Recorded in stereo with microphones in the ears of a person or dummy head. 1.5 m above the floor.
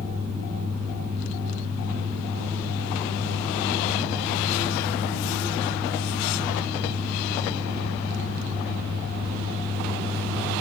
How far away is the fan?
About 1.7 m.